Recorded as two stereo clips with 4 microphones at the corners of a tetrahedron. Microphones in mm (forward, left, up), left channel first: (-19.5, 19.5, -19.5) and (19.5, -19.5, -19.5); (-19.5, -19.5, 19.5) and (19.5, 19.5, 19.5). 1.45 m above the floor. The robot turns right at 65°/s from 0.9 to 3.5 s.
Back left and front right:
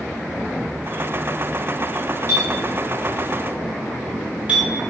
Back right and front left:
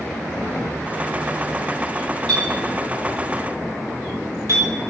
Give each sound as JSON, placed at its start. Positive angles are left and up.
{"t": 2.3, "sound": "a clink", "azimuth_deg": -55, "distance_m": 2.5}